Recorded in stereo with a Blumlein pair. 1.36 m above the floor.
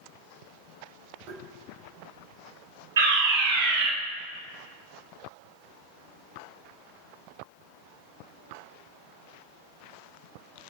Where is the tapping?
35° right, 4.5 m.